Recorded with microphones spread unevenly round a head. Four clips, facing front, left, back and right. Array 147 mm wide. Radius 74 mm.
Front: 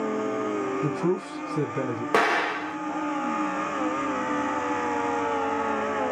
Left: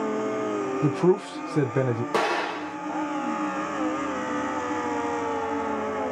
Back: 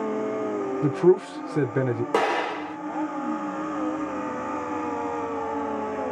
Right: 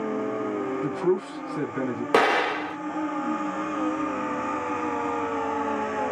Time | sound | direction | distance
0.8 | a man speaking | 120° left | 0.9 m
2.1 | an explosion | 75° right | 0.9 m